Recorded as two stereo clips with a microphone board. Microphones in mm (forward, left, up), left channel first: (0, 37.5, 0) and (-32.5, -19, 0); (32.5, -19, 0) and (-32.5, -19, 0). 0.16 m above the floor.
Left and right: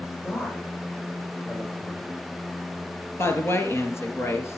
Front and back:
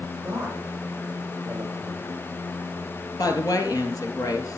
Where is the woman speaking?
15° left, 2.5 m.